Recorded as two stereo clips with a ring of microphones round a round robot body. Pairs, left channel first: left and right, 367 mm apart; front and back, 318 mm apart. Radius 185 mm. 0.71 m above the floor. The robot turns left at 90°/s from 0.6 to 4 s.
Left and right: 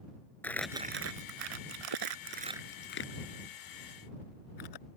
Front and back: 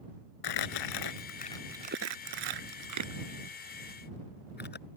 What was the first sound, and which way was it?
Crumpling, 5° left.